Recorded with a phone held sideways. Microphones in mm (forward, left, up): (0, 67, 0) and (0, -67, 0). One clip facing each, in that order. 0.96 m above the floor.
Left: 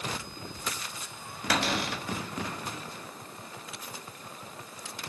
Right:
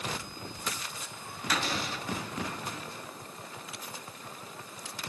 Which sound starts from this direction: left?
A cupboard door, at 1.5 s.